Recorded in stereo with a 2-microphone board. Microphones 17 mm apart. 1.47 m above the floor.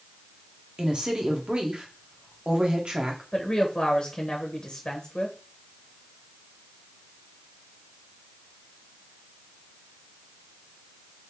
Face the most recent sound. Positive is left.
turn(degrees=50)  # may be behind; listen again after turning